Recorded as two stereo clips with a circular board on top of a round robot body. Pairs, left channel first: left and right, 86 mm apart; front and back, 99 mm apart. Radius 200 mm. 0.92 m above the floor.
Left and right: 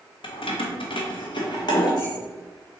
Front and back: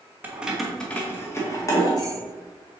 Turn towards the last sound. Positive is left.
turn(degrees=50)